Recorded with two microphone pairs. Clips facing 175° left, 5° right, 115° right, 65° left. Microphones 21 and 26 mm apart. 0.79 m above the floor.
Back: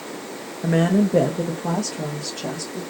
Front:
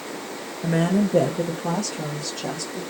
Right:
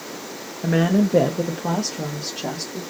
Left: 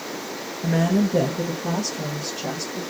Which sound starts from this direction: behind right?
A woman speaking, at 0.6 s.